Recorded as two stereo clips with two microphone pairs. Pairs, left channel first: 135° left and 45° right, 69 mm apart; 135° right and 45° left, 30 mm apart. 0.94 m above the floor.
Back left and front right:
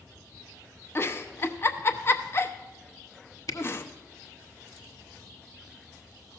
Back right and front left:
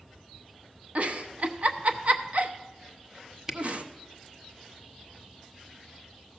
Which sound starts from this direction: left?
A giggle, at 0.9 s.